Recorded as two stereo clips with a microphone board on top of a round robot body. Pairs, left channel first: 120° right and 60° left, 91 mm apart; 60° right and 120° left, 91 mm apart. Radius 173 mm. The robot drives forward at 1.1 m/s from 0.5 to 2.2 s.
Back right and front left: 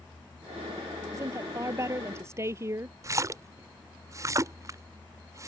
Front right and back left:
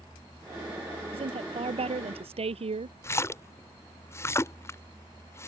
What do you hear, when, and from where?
1.1 s a woman speaking: 115° left; by 2.9 s 120° left
3.0 s a splash: 5° left